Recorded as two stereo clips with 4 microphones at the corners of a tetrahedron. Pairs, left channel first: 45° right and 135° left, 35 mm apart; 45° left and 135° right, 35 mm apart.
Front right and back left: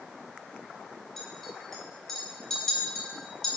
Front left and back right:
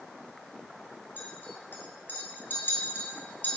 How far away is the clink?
About 2.0 m.